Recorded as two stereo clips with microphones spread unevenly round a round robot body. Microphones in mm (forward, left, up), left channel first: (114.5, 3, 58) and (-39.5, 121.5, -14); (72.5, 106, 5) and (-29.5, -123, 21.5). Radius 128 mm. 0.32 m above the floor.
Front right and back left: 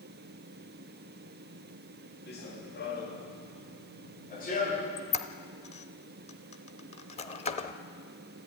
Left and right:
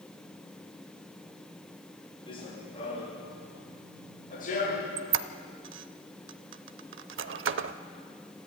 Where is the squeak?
110° right, 0.7 m.